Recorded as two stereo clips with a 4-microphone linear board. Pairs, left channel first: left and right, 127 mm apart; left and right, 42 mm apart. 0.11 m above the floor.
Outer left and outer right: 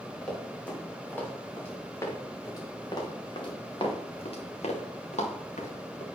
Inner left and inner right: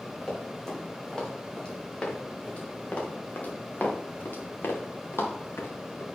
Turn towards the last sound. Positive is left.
turn(degrees=85)